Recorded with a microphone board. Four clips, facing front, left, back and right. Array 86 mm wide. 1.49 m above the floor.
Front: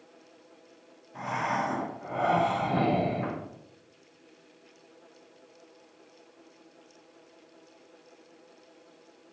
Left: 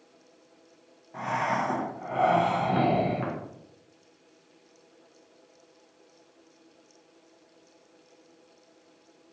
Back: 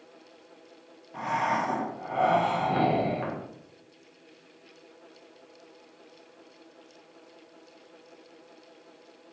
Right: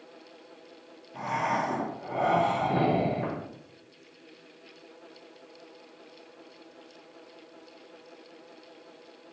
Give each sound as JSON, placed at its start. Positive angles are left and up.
{"t": 1.1, "sound": "breathing", "azimuth_deg": 135, "distance_m": 1.0}